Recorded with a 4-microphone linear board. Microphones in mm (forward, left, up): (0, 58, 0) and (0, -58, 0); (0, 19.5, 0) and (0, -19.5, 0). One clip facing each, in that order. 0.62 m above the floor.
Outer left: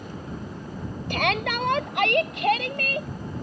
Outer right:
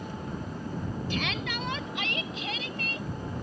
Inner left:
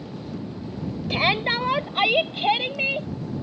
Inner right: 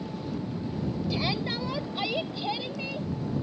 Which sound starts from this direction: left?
A shout, at 1.1 s.